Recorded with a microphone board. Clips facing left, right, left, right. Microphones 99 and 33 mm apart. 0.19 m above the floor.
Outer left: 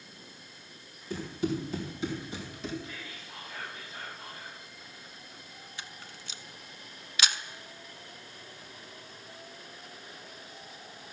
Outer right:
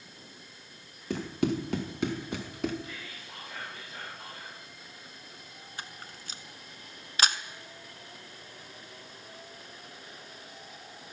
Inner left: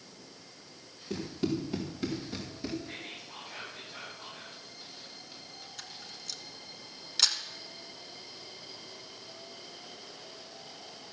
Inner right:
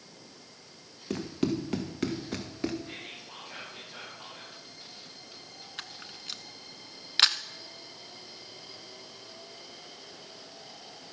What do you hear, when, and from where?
1.1 s running footsteps: 85° right, 2 m; by 2.8 s 65° right (ahead or behind), 1.6 m
2.9 s whispering: 70° right (ahead or behind), 5.5 m
5.8 s a camera shutter: 45° right (ahead or behind), 0.5 m